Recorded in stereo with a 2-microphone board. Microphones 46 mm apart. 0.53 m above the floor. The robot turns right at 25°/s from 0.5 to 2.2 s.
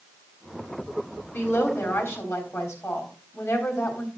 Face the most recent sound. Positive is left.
turn(degrees=70)  # may be behind; listen again after turning